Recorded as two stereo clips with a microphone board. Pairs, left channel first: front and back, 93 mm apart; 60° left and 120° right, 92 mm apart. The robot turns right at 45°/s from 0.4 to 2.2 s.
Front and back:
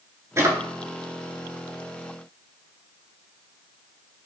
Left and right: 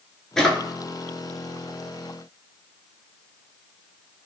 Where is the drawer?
140° left, 0.7 m; by 0.6 s 150° left, 0.7 m.